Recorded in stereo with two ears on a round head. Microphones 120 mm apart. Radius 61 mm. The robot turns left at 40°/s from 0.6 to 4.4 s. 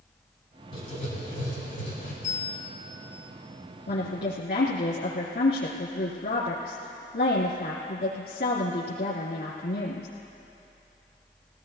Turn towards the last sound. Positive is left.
turn(degrees=85)